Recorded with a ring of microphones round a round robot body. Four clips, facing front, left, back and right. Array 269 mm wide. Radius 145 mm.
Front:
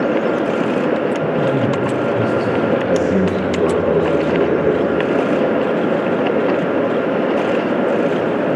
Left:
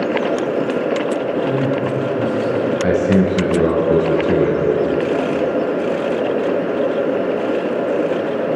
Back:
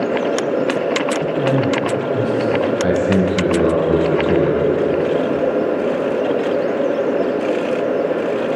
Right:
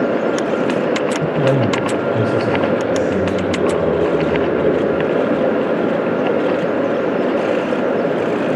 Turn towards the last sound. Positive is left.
turn(degrees=125)